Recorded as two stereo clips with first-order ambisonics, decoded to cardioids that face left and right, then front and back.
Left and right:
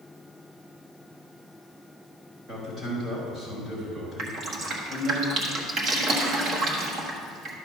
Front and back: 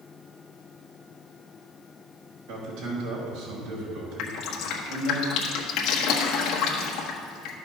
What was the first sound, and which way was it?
A man speaking, 160° right.